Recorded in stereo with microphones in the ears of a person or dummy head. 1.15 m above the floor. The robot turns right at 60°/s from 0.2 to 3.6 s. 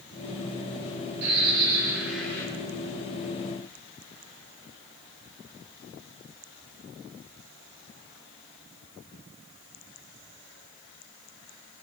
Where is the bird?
60° right, 3.5 m; by 2.5 s 15° left, 3.5 m.